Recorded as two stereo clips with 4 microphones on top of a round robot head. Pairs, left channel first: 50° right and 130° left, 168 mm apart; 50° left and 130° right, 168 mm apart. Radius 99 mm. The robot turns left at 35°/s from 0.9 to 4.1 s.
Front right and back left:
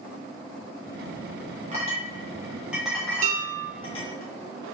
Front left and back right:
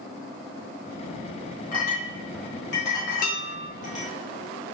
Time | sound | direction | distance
1.7 | a clink | 85° left | 1.4 m
3.2 | dishes clattering | 85° left | 1.2 m